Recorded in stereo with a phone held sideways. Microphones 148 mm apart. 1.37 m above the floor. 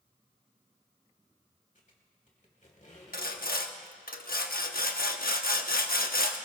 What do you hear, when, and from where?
1.8 s a squeak: 60° left (ahead or behind), 2.5 m
3.1 s sawing: 80° left, 1.0 m